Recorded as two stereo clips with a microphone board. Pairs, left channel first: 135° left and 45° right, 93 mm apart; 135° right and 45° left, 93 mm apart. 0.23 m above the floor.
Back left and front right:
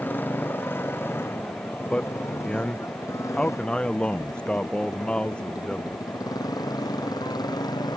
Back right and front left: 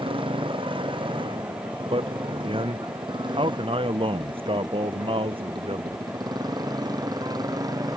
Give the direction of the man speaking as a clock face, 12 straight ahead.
10 o'clock.